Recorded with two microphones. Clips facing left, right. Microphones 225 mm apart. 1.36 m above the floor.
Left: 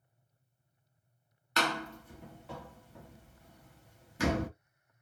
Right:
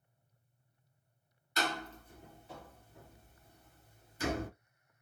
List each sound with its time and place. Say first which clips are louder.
1.6 s a door slam: left 3 dB; 65° left (ahead or behind), 0.7 m